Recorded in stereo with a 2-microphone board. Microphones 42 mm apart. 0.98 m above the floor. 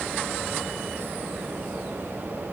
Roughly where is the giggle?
No giggle in this recording.